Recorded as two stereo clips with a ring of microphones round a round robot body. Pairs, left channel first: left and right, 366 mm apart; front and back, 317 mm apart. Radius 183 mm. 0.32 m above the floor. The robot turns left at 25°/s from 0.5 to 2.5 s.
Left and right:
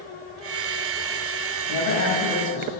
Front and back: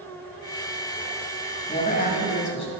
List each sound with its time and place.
1.7 s a woman speaking: 65° left, 2.5 m; by 2.7 s 45° left, 2.5 m